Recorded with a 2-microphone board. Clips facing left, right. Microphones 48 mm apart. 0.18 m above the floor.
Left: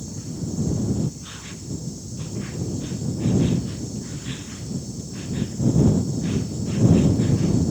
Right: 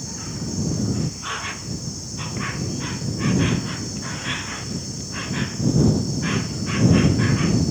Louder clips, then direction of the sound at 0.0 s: Even; 65° right (ahead or behind).